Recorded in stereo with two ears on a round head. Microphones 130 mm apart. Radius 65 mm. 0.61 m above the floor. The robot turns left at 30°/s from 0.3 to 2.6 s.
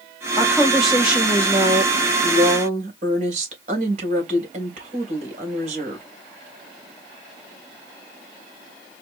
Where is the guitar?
I don't hear a guitar.